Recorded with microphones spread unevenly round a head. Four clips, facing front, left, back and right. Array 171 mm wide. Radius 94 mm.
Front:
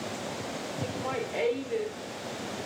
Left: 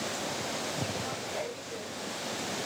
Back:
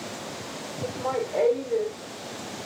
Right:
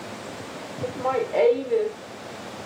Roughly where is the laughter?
Behind right.